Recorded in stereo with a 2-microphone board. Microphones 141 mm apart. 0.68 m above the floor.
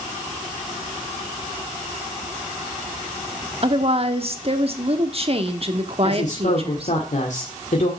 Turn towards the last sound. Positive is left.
turn(degrees=60)  # may be behind; listen again after turning